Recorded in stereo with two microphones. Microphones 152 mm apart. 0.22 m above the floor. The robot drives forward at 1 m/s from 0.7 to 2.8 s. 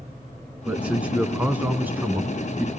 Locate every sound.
0.7 s a man speaking: 10° right (ahead or behind), 3 m; by 2.7 s 15° right (ahead or behind), 1.5 m